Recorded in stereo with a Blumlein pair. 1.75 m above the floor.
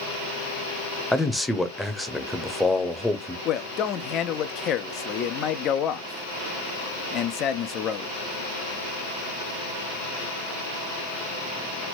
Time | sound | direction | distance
1.1 | a man speaking | straight ahead | 0.9 m
3.5 | a man speaking | 30° left | 0.5 m